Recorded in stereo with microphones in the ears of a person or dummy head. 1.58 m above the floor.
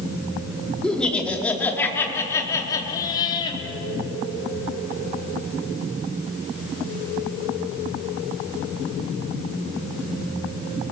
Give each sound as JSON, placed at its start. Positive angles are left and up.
{"t": 0.8, "sound": "laughter", "side_deg": 5, "distance_m": 5.0}